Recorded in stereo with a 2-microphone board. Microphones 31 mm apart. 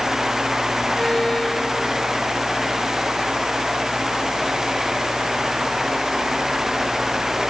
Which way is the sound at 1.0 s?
20° left (ahead or behind).